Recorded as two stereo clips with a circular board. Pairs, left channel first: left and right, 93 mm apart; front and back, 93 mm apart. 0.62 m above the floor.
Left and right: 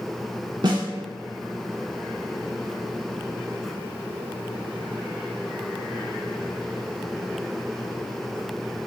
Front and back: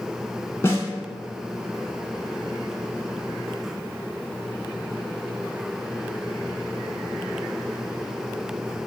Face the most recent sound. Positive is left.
turn(degrees=-60)